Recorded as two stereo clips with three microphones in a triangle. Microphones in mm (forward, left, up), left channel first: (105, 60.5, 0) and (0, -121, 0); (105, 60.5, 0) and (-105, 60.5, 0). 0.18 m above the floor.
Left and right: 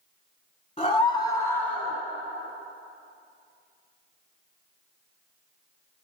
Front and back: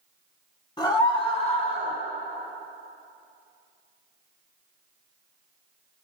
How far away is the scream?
About 1.3 m.